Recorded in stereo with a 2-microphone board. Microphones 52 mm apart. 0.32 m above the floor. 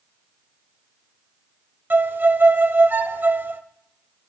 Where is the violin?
40° right (ahead or behind), 0.5 m.